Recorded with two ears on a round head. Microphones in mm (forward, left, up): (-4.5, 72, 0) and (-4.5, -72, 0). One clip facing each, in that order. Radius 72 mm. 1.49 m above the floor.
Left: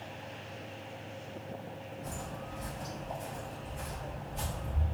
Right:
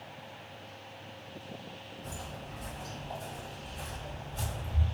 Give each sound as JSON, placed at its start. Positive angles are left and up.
{"t": 2.0, "sound": "footsteps", "side_deg": 30, "distance_m": 1.8}